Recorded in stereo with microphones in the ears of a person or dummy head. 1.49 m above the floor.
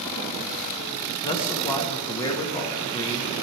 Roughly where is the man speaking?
Left.